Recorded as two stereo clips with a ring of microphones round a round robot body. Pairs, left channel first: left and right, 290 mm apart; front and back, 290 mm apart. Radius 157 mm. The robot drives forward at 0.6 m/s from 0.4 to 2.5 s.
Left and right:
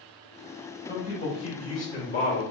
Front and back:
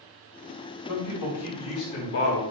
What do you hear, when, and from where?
0.9 s a man speaking: 20° left, 2.0 m; by 2.4 s 40° left, 1.4 m